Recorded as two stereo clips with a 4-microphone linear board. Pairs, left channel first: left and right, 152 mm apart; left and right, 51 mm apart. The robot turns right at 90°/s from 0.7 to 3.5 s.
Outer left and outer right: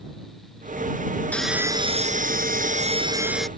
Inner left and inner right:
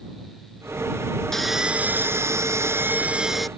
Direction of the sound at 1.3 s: 170° left.